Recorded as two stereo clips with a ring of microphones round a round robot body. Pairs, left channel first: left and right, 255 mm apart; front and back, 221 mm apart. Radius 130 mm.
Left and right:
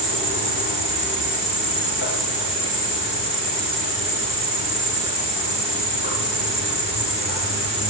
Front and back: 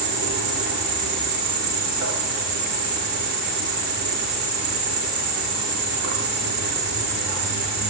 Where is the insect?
135° left, 9 m.